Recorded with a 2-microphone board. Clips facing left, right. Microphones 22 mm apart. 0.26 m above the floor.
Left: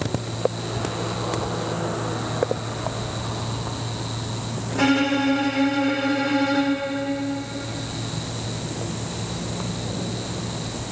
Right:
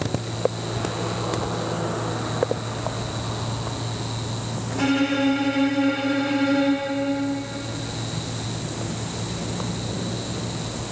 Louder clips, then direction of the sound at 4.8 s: Left 2 dB; 30° left (ahead or behind).